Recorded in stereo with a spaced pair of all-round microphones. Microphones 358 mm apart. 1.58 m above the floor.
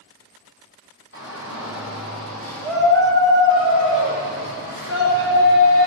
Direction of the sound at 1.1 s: 35° left (ahead or behind).